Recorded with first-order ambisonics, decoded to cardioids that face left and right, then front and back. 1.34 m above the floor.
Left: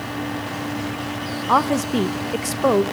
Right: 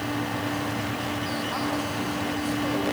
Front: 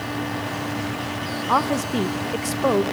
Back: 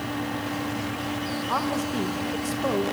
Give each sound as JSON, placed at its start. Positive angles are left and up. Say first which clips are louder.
{"t": 1.5, "sound": "a woman speaking", "louder": "left 10 dB, front 7 dB", "azimuth_deg": 65, "distance_m": 0.8}